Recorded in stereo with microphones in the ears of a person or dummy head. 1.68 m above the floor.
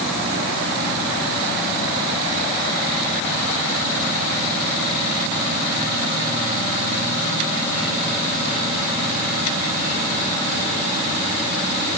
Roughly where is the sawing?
No sawing in this recording.